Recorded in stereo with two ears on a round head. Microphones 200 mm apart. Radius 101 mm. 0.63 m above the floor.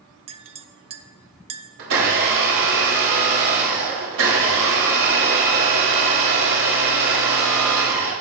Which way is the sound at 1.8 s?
65° right (ahead or behind).